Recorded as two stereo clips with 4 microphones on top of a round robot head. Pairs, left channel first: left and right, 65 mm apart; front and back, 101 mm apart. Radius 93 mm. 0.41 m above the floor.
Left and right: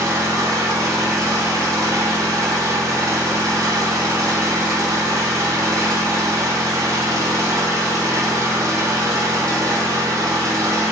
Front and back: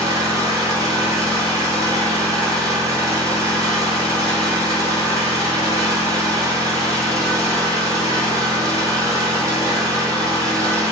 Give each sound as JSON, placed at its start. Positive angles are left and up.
{"t": 0.0, "sound": "an engine running", "azimuth_deg": -125, "distance_m": 0.7}